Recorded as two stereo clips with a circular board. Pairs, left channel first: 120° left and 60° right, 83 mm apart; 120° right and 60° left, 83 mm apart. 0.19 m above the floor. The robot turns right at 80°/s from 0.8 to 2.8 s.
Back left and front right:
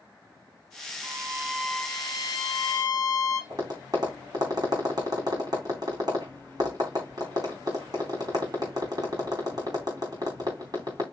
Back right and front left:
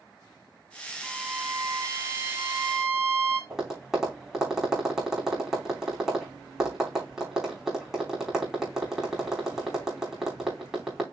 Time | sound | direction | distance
1.0 | a violin | 15° right | 1.6 m
3.5 | tapping | 25° right | 3 m